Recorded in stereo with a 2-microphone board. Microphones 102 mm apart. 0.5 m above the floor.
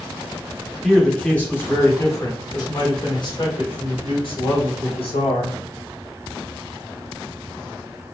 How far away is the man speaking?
About 1.6 m.